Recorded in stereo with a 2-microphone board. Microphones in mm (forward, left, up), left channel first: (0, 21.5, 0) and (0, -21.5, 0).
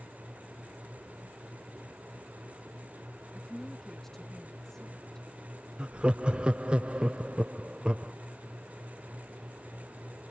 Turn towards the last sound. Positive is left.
turn(degrees=-25)  # may be behind; listen again after turning